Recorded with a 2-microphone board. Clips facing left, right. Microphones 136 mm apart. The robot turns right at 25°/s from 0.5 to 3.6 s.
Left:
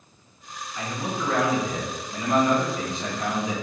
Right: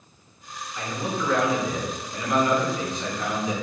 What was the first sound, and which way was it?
A man speaking, 20° left (ahead or behind).